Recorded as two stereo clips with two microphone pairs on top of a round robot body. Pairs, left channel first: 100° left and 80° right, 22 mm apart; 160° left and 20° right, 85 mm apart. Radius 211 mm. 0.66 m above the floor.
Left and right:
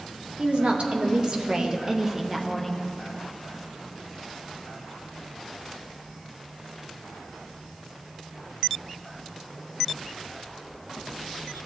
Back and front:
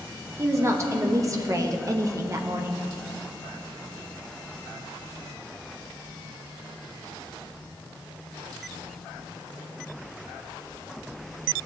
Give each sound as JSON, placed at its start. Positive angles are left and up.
{"t": 0.4, "sound": "a woman speaking", "azimuth_deg": -70, "distance_m": 1.5}